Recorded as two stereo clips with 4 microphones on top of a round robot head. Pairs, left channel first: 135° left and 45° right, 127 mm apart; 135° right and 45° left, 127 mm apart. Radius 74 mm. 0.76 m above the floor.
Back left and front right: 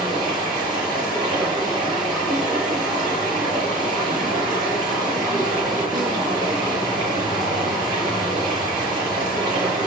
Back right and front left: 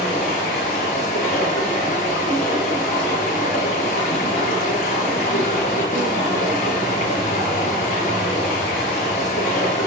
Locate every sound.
0.0 s running water: 100° right, 8 m